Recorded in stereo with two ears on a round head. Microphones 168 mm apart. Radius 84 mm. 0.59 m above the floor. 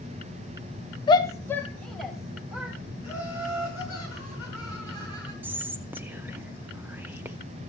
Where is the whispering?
10° right (ahead or behind), 0.7 m.